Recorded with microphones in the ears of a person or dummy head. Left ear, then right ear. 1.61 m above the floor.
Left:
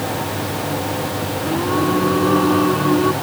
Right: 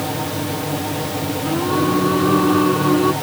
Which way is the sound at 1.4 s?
5° left (ahead or behind).